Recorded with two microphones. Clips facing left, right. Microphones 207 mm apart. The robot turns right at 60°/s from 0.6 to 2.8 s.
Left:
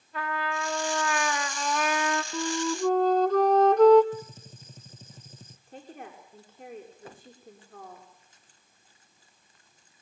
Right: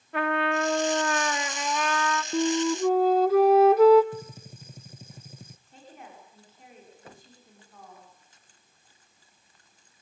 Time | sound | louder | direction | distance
0.1 | a trumpet | right 7 dB | 70° right | 1.8 m
2.3 | a flute | right 9 dB | 35° right (ahead or behind) | 0.8 m
4.1 | a gunshot | even | 10° right (ahead or behind) | 0.8 m
5.7 | a woman speaking | left 6 dB | 50° left (ahead or behind) | 6.5 m